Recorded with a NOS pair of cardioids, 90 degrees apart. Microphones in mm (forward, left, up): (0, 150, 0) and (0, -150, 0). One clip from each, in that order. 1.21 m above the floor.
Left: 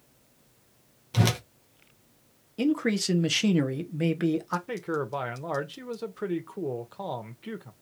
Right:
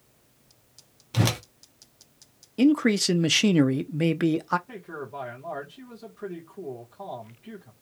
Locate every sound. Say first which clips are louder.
1.1 s a whoosh: right 1 dB; 5° right, 0.7 m
2.6 s a man speaking: right 5 dB; 20° right, 0.6 m
4.7 s a man speaking: left 7 dB; 65° left, 1.0 m